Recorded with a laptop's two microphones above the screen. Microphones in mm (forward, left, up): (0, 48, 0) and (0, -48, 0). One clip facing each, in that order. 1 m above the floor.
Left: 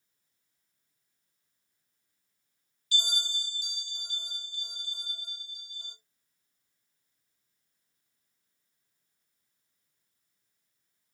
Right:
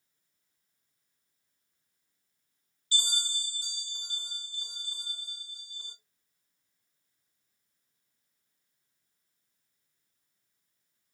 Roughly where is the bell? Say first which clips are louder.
Left 1 dB; right.